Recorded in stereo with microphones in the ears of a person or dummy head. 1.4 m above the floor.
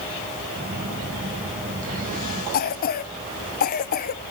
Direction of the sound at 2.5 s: 50° left (ahead or behind).